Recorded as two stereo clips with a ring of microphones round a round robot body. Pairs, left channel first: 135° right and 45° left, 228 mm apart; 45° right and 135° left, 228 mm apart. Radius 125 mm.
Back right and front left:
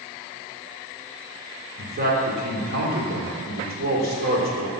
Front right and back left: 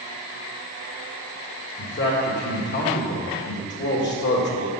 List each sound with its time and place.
1.8 s a man speaking: 5° right, 2.0 m